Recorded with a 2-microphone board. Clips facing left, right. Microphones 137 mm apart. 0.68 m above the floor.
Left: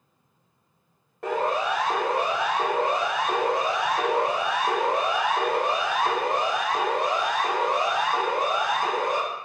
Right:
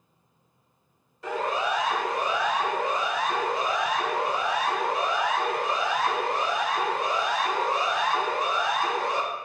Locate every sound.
1.2 s a siren: 60° left (ahead or behind), 4 m; by 9.2 s 55° left (ahead or behind), 5.5 m